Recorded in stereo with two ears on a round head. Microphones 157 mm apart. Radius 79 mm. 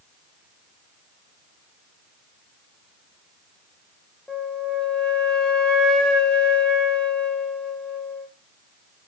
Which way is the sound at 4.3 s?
5° left (ahead or behind).